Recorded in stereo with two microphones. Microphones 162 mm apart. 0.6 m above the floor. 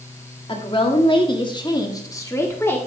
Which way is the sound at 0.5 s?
30° left (ahead or behind).